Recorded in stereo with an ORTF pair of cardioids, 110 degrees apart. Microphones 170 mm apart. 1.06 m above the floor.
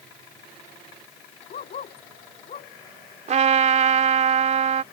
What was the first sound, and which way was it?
A dog barking, 45° left.